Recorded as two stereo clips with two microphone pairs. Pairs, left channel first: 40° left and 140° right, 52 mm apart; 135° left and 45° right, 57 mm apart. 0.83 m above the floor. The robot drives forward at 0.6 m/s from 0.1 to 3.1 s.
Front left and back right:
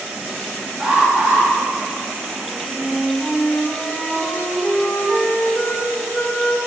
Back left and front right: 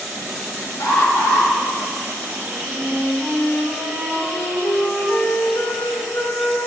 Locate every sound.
0.8 s an alarm: 155° left, 1.6 m; by 1.5 s 160° left, 1.9 m
2.5 s a flute: 100° left, 1.7 m; by 6.7 s 110° left, 1.8 m